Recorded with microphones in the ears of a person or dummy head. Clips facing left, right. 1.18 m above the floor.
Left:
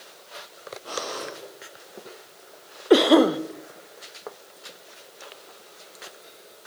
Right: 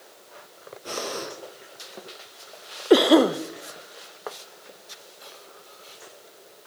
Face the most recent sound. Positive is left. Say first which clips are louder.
# even
turn(degrees=-5)  # may be behind; listen again after turning